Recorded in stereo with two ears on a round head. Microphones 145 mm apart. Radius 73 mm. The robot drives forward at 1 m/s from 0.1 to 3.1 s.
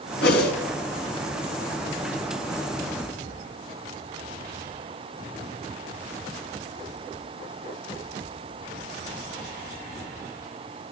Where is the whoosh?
75° left (ahead or behind), 3.5 m; by 0.5 s 70° left (ahead or behind), 4 m.